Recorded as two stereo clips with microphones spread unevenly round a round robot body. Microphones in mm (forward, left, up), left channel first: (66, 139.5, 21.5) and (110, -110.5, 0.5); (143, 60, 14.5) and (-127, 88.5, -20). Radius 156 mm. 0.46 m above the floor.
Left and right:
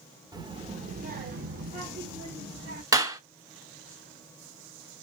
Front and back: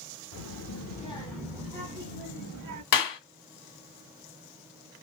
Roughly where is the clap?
Ahead.